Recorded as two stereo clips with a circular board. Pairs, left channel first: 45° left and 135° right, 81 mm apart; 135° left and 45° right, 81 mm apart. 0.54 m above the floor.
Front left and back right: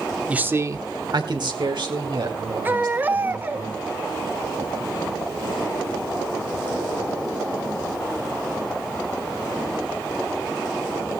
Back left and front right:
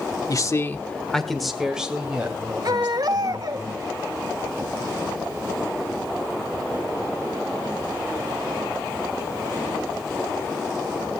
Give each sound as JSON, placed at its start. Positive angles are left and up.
{"t": 0.3, "sound": "a man speaking", "azimuth_deg": 155, "distance_m": 0.9}
{"t": 2.6, "sound": "a baby crying", "azimuth_deg": -70, "distance_m": 1.2}